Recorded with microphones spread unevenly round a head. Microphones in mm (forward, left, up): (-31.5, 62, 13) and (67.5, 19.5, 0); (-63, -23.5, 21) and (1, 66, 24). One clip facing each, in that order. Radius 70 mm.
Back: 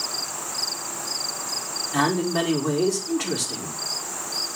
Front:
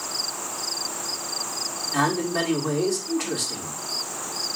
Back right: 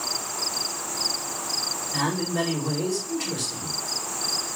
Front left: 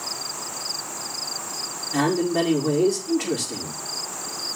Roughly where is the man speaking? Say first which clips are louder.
Back 1 dB, front left 6 dB; left.